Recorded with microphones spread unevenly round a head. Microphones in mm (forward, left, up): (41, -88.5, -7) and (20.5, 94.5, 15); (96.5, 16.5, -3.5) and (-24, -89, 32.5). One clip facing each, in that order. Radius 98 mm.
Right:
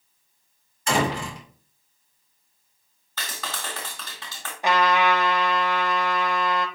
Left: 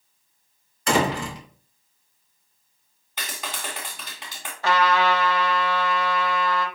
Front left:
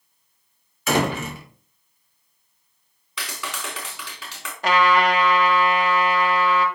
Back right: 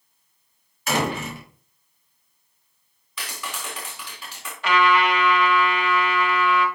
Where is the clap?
25° left, 3 m.